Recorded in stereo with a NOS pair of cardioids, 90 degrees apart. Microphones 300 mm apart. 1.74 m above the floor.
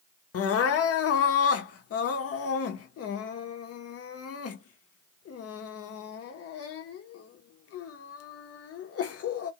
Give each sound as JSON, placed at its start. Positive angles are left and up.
{"t": 0.3, "sound": "crying", "azimuth_deg": 50, "distance_m": 0.8}